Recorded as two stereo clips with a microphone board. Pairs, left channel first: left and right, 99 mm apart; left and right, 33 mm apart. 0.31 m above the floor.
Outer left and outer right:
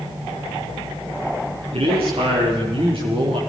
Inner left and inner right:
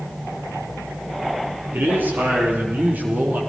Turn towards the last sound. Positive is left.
turn(degrees=-65)  # may be behind; listen again after turning